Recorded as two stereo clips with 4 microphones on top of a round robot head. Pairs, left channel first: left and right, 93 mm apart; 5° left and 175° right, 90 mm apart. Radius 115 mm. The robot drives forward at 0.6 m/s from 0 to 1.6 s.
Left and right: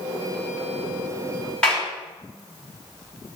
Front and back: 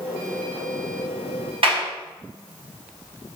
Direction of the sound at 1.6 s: 175° left.